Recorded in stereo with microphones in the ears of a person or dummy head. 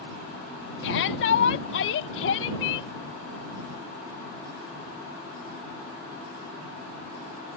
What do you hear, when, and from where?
0.8 s a shout: 75° left (ahead or behind); by 2.9 s 80° left